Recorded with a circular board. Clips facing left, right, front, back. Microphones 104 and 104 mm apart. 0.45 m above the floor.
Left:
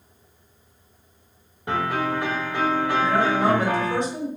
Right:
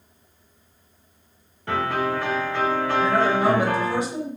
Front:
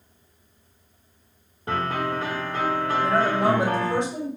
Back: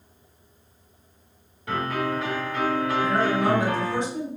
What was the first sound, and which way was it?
A piano, 25° left.